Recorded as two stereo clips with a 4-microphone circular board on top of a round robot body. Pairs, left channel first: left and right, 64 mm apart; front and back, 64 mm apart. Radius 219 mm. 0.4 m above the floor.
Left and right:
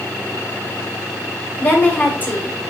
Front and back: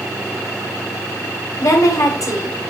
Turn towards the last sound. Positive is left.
turn(degrees=30)